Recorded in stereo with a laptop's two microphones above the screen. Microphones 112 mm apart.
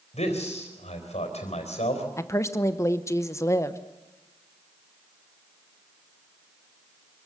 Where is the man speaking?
85° left, 4 m.